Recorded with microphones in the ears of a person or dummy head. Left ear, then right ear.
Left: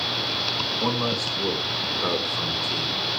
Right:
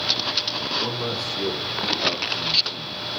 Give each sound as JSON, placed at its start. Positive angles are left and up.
{"t": 0.8, "sound": "a man speaking", "side_deg": 0, "distance_m": 4.0}